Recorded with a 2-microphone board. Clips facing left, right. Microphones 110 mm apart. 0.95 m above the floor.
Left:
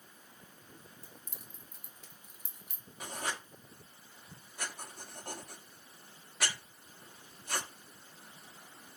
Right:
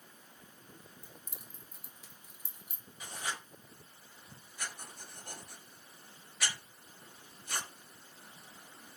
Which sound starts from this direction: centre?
Keys jangling, at 1.0 s.